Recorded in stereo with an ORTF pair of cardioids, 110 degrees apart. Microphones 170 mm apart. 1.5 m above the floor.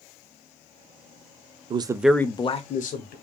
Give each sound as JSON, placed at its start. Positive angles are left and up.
{"t": 1.7, "sound": "a man speaking", "azimuth_deg": -30, "distance_m": 0.5}